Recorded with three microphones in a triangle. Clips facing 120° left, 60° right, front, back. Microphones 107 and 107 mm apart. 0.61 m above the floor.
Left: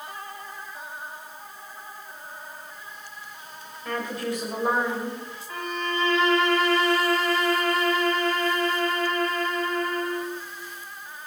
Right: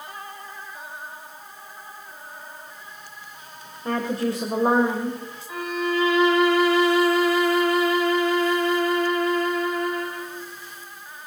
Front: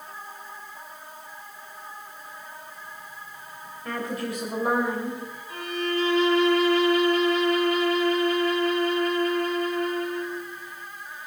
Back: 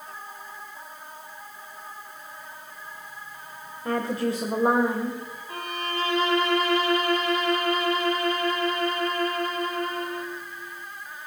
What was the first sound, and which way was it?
A woman speaking, 120° right.